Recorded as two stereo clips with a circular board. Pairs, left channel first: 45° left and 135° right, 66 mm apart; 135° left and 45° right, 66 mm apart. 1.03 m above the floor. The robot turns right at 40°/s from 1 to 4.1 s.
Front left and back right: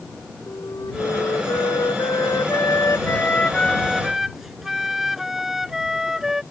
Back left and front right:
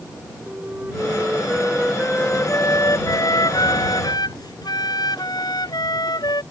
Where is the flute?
20° left; by 6.4 s 140° left.